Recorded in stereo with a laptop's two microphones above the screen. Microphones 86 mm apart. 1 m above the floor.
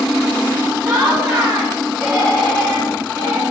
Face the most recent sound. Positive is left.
turn(degrees=5)  # may be behind; listen again after turning